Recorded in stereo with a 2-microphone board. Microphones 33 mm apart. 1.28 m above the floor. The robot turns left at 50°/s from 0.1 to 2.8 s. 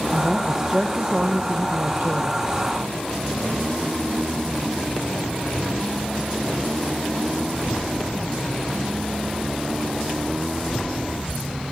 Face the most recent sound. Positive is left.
turn(degrees=-115)